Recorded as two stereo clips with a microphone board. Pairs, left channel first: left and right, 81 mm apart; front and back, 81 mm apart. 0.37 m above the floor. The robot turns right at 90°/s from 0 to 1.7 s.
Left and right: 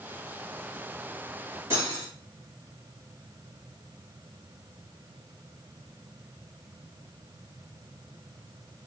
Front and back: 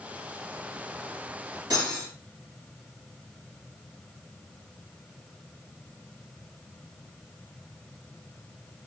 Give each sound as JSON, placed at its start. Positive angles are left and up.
{"t": 1.7, "sound": "cutlery clinking", "azimuth_deg": -145, "distance_m": 2.5}